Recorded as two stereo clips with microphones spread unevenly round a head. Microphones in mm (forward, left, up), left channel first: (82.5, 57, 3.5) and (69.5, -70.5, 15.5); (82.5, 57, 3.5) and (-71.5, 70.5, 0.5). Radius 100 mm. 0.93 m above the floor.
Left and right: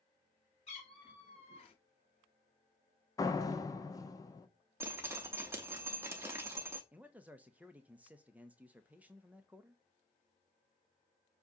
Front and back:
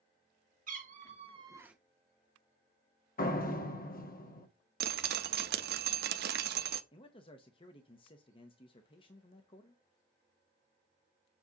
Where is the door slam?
20° left, 1.1 m.